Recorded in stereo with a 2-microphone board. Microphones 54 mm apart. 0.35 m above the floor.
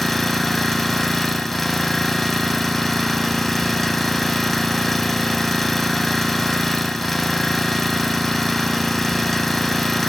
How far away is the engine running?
About 0.8 m.